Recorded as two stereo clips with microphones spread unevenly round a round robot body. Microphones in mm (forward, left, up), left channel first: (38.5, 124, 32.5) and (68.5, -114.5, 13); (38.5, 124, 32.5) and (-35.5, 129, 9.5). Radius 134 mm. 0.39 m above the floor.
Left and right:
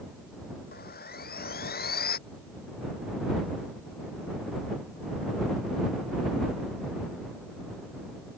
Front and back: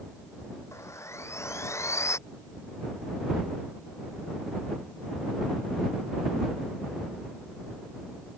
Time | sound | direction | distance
0.7 | sawing | 45° left | ?